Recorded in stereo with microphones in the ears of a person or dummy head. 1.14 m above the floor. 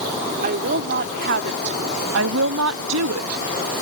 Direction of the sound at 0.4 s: 40° right (ahead or behind).